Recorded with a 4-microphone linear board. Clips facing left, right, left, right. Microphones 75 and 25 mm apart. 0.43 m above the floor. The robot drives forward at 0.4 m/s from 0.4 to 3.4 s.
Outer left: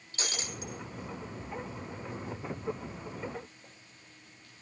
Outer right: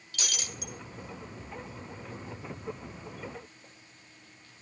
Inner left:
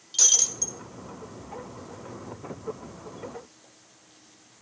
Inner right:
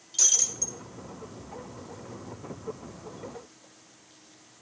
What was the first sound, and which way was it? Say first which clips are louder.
Breaking glass: outer left 1 dB, inner left 3 dB; 30° left (ahead or behind).